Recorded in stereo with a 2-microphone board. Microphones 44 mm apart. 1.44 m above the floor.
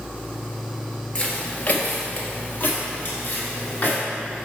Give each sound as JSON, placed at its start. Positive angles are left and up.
{"t": 1.1, "sound": "footsteps", "side_deg": 25, "distance_m": 1.7}